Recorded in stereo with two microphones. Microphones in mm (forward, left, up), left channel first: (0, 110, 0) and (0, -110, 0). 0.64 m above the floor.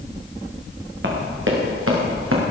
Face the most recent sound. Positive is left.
turn(degrees=-80)